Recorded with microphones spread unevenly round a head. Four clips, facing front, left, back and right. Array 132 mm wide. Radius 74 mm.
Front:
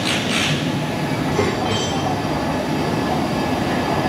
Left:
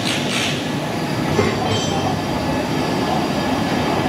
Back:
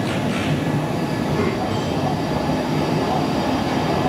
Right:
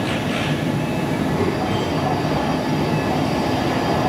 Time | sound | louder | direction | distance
1.2 | a child speaking | left 4 dB, front 3 dB | 70° left | 4 m